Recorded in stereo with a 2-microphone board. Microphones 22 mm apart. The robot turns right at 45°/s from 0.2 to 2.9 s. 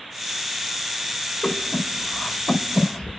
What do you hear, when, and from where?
1.4 s breathing: 70° left (ahead or behind), 4.5 m; by 3.2 s 45° left (ahead or behind), 4.5 m